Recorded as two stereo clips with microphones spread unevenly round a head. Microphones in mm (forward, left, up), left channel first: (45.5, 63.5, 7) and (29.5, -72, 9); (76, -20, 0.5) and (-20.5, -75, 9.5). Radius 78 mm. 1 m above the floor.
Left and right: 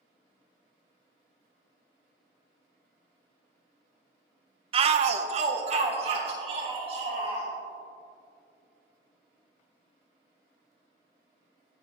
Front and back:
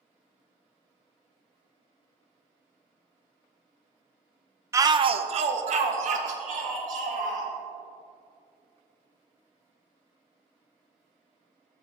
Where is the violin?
No violin in this recording.